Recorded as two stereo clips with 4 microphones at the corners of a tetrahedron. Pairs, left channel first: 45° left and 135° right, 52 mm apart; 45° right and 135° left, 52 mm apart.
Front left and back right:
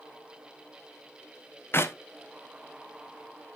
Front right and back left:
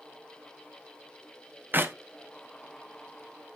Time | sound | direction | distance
1.7 | a clap | 90° left | 0.9 m